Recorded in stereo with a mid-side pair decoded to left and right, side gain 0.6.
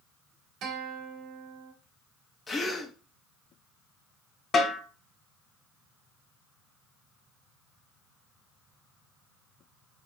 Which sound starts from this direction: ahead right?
A guitar, at 0.6 s.